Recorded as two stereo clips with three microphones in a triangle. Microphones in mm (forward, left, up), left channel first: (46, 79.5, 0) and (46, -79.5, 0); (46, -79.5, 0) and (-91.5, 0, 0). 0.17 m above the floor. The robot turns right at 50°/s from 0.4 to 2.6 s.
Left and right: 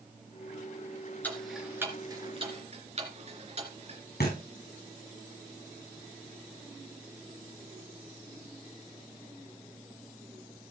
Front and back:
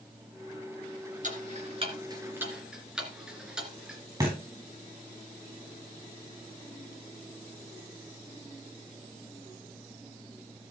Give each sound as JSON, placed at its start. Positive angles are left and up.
{"t": 1.2, "sound": "ticking", "azimuth_deg": 165, "distance_m": 2.5}
{"t": 4.2, "sound": "a thud", "azimuth_deg": 85, "distance_m": 5.5}